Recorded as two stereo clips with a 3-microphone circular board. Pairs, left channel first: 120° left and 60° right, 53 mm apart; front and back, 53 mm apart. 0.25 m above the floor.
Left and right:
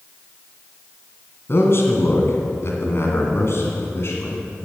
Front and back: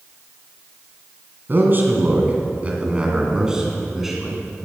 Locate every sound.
1.5 s a man speaking: 145° left, 2.5 m; by 4.4 s 95° left, 3 m